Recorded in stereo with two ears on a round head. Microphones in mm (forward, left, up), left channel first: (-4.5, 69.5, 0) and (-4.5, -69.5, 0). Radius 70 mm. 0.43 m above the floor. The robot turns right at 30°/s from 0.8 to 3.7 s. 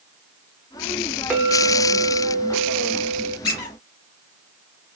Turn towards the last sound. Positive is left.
turn(degrees=25)  # may be behind; listen again after turning